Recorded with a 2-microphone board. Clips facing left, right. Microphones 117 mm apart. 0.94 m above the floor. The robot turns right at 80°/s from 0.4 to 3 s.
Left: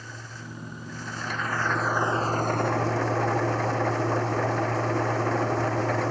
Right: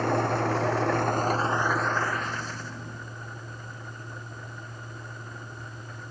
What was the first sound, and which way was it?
An engine running, 110° right.